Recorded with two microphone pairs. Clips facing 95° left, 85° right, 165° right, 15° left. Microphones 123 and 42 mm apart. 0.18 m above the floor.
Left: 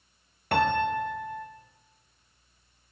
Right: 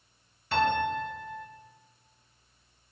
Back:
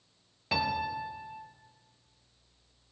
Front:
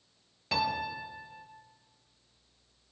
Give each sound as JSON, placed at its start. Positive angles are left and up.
{"t": 0.5, "sound": "a piano", "azimuth_deg": 110, "distance_m": 1.8}